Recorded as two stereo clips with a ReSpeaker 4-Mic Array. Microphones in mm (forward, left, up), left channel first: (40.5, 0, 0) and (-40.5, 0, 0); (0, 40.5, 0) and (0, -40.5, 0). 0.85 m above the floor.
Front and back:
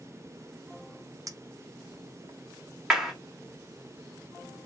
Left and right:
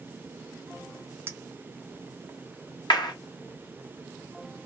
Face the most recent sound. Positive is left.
turn(degrees=95)